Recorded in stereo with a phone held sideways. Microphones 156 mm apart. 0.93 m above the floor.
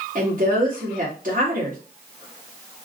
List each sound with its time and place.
0.1 s a woman speaking: 55° right (ahead or behind), 1.9 m